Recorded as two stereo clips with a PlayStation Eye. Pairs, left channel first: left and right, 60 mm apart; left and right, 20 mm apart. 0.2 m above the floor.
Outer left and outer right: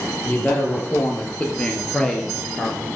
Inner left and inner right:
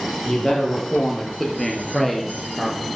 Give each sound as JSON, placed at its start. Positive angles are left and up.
{"t": 0.3, "sound": "a man speaking", "side_deg": 30, "distance_m": 3.0}